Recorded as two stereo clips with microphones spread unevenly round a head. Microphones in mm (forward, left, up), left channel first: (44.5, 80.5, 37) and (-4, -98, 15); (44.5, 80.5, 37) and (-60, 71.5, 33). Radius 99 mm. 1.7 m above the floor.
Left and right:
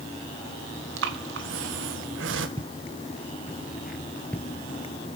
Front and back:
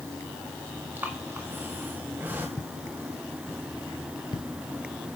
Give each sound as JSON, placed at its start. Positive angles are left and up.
{"t": 1.0, "sound": "breathing", "azimuth_deg": -95, "distance_m": 2.0}
{"t": 2.6, "sound": "footsteps", "azimuth_deg": -55, "distance_m": 1.9}